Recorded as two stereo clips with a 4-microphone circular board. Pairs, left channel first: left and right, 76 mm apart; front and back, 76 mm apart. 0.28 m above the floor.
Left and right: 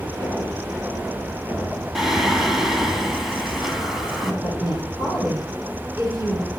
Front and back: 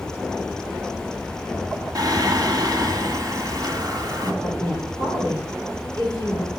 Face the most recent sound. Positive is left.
turn(degrees=-150)